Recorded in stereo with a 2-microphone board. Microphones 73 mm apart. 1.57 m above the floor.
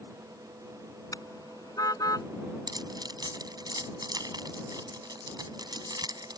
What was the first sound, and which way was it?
A car horn, 55° left (ahead or behind).